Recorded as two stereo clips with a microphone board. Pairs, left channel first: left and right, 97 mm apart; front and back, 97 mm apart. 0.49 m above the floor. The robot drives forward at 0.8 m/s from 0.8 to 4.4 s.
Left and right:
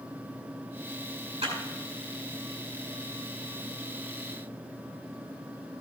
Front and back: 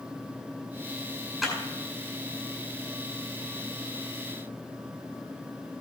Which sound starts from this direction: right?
A clap, at 1.4 s.